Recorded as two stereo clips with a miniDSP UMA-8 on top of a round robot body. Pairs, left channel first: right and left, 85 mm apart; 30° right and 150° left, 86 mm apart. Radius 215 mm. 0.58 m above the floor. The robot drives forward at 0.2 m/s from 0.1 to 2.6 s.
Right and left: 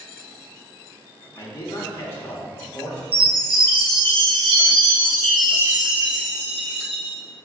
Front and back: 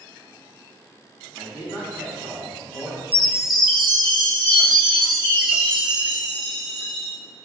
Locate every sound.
1.4 s a man speaking: 145° right, 1.1 m; by 3.0 s 150° right, 1.2 m
3.1 s a chime: 115° left, 0.5 m